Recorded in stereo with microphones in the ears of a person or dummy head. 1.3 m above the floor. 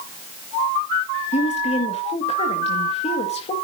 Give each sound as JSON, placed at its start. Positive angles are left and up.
{"t": 1.3, "sound": "a woman speaking", "side_deg": 35, "distance_m": 1.8}